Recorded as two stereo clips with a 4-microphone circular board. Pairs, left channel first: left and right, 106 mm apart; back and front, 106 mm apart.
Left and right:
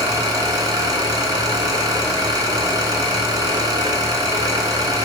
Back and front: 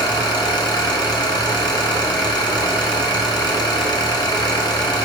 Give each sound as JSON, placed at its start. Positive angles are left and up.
{"t": 0.0, "sound": "an engine running", "azimuth_deg": -135, "distance_m": 1.6}